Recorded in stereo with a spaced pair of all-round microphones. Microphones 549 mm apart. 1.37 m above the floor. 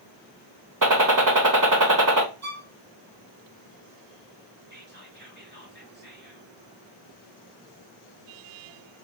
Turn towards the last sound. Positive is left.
turn(degrees=-20)  # may be behind; listen again after turning